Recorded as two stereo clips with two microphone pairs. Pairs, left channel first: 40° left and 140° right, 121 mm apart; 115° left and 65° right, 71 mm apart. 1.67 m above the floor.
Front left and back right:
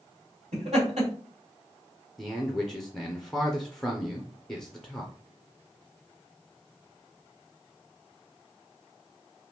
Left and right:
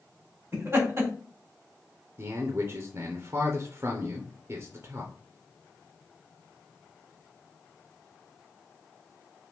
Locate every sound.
0.5 s laughter: 120° right, 1.9 m
2.2 s a man speaking: 50° right, 0.5 m